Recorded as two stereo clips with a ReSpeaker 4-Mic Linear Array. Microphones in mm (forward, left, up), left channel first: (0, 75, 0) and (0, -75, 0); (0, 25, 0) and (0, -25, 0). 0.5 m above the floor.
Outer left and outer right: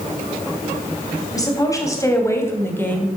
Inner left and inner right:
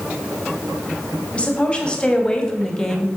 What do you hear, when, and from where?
1.3 s a woman speaking: 25° left (ahead or behind), 3 m; by 3.1 s 10° left (ahead or behind), 2 m